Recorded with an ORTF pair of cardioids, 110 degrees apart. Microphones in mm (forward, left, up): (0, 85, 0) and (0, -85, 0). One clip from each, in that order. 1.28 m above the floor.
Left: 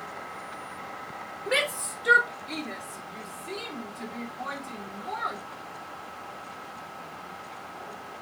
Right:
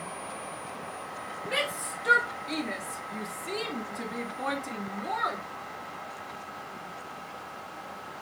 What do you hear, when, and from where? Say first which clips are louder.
1.5 s a shout: left 4 dB; 30° left, 0.8 m; by 5.4 s 55° right, 2.5 m